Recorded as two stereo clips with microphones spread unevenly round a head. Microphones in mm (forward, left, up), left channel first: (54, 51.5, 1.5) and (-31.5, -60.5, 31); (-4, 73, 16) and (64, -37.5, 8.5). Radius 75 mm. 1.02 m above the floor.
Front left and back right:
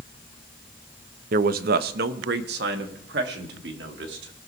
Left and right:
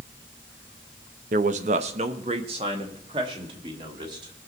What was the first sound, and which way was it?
A man speaking, 95° right.